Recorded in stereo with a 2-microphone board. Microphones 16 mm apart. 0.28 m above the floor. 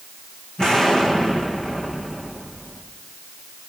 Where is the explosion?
55° left (ahead or behind), 8.5 m.